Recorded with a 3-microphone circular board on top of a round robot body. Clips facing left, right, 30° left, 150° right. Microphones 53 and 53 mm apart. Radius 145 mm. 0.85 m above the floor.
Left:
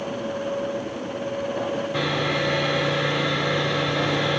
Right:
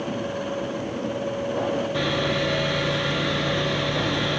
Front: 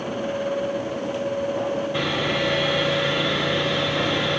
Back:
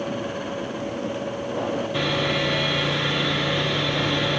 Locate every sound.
1.9 s sawing: 100° left, 2.0 m